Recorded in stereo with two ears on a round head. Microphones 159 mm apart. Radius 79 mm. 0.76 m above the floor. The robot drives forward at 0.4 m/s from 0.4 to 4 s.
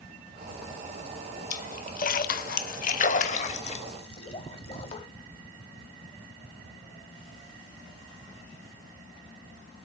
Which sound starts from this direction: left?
A splash, at 1.5 s.